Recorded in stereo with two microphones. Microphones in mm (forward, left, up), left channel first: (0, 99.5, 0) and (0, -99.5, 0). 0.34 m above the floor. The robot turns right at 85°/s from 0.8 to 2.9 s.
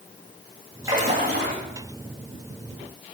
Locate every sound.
0.8 s a splash: 165° right, 4.5 m; by 1.6 s 105° right, 4.5 m